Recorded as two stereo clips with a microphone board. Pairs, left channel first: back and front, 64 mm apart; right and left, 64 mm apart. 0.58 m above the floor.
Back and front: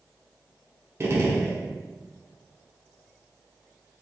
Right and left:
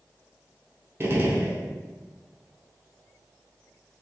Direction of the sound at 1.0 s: 45° left.